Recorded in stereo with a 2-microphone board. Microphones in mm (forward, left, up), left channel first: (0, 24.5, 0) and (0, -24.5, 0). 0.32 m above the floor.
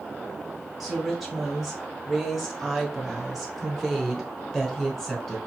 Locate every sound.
0.8 s a woman speaking: centre (ahead or behind), 2 m